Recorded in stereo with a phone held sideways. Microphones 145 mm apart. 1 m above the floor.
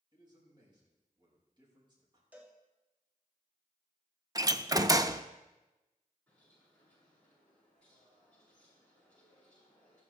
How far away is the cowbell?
About 2 m.